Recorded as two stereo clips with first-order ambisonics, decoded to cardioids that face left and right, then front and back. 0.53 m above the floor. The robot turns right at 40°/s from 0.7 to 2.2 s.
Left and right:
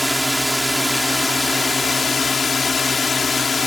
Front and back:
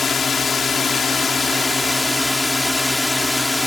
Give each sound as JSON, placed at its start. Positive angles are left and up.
{"t": 0.0, "sound": "a drone", "azimuth_deg": 10}